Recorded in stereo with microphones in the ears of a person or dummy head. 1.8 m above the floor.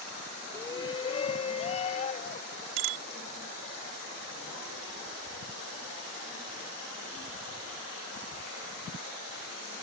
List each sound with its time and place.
0.5 s a shout: 15° left (ahead or behind); by 2.6 s 35° left (ahead or behind)
2.8 s a bicycle bell: 70° right (ahead or behind)